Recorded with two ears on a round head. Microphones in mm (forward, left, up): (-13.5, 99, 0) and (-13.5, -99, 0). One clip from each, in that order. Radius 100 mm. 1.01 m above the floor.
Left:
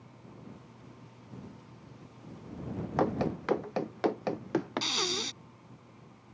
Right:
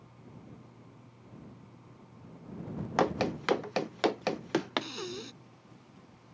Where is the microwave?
I don't hear a microwave.